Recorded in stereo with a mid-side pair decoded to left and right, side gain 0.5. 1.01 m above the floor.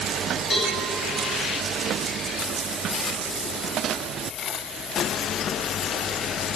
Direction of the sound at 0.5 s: 50° left.